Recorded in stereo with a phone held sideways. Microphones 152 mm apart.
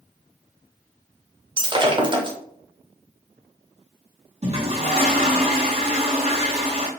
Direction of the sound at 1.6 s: 30° right (ahead or behind).